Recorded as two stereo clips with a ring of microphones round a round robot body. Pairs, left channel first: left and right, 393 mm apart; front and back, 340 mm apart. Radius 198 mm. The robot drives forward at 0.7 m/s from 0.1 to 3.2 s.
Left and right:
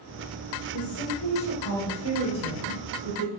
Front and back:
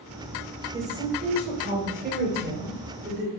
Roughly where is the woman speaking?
Left.